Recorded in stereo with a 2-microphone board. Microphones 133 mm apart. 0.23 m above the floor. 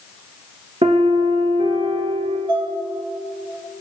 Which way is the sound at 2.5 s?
40° right (ahead or behind).